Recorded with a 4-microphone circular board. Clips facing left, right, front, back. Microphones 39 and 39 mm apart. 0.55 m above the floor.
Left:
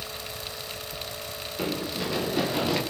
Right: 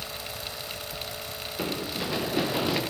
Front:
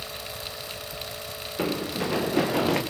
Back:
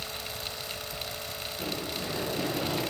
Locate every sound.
1.6 s running footsteps: 5° right, 7 m; by 2.8 s 10° right, 8 m